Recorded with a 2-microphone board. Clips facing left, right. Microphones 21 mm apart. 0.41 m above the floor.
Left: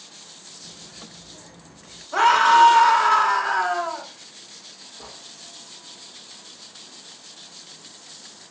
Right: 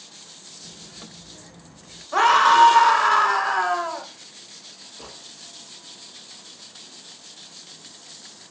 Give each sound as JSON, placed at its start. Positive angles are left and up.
{"t": 0.6, "sound": "a child speaking", "side_deg": -50, "distance_m": 3.5}
{"t": 2.1, "sound": "a scream", "side_deg": -20, "distance_m": 0.9}
{"t": 5.0, "sound": "a gunshot", "side_deg": -55, "distance_m": 2.5}